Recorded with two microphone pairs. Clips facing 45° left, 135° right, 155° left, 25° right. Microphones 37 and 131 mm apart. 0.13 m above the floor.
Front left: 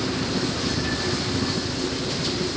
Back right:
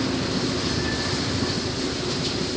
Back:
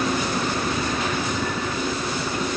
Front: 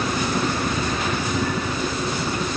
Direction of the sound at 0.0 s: 35° left.